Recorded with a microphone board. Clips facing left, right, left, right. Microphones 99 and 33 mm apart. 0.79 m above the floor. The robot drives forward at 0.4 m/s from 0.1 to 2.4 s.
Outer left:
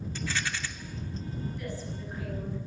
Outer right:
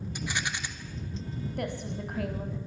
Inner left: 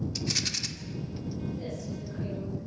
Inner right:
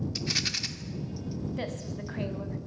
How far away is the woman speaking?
About 5 m.